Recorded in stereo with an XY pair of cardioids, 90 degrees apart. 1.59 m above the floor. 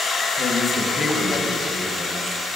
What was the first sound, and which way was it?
A man speaking, 45° left.